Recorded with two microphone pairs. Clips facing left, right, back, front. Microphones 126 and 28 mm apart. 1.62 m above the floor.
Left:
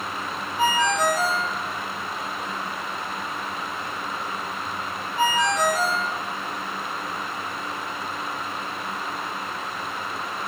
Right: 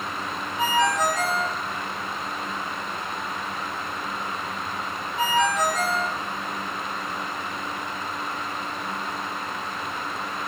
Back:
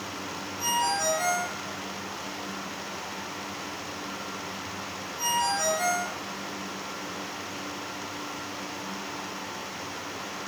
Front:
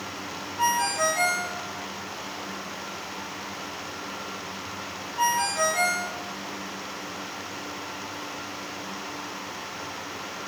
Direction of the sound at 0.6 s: Straight ahead.